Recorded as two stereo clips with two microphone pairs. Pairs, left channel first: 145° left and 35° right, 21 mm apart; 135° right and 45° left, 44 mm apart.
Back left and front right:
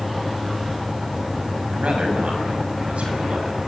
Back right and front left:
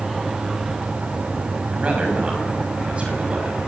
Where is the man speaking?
15° right, 6 m.